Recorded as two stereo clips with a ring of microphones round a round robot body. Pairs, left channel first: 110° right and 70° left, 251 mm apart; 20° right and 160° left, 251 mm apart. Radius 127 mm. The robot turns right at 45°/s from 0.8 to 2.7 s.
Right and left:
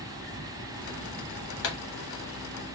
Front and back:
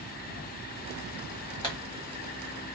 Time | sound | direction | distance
1.6 | a pop | 95° right | 1.6 m